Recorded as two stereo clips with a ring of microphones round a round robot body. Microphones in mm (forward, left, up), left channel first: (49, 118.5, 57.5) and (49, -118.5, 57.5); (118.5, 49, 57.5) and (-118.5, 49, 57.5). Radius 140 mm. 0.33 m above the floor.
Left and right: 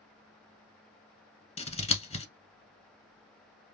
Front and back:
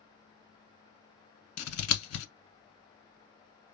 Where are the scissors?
25° left, 1.0 m.